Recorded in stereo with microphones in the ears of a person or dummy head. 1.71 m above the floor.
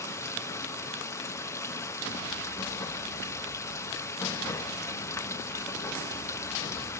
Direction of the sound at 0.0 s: 10° left (ahead or behind).